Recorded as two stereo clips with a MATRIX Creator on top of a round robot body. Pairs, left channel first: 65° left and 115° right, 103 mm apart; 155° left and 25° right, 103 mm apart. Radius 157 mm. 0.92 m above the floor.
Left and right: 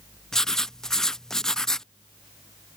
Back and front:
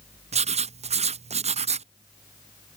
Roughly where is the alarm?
No alarm in this recording.